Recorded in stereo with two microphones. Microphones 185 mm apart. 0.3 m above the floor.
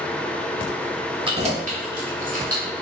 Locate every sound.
1.2 s keys jangling: 25° right (ahead or behind), 0.7 m; by 2.6 s 50° right (ahead or behind), 1.8 m